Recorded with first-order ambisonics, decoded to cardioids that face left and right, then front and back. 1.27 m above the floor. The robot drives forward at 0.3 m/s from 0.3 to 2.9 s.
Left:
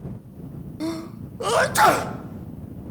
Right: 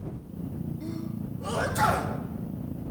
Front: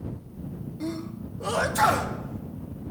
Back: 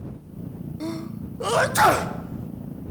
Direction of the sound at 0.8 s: 105° left.